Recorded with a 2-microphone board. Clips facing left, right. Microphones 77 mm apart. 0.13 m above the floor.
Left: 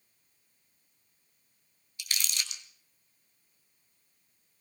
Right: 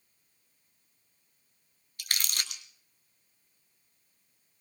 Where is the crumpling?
50° right (ahead or behind), 1.3 m.